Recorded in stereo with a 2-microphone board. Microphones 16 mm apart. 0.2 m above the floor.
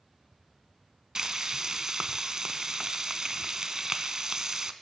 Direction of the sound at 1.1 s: 45° right (ahead or behind).